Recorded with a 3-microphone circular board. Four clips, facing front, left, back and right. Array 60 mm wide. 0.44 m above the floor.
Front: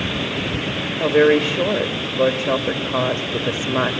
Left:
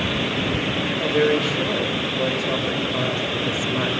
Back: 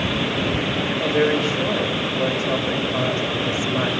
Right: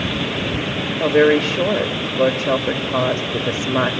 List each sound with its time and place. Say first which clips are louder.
1.0 s a woman speaking: right 6 dB, front 6 dB; 50° right, 2 m